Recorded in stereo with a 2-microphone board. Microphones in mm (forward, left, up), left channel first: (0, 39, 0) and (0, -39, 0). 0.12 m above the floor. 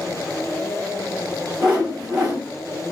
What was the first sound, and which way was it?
A whoosh, 10° right (ahead or behind).